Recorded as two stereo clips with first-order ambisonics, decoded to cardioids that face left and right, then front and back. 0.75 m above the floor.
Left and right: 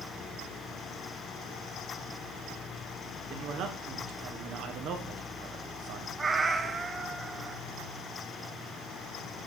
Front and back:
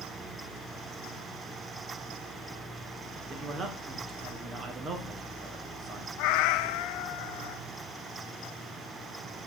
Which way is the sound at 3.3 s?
120° right.